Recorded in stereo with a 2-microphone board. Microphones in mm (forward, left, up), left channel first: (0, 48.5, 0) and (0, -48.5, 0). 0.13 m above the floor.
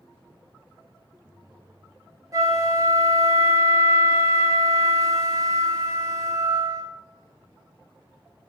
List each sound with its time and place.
2.3 s a flute: 35° right (ahead or behind), 0.5 m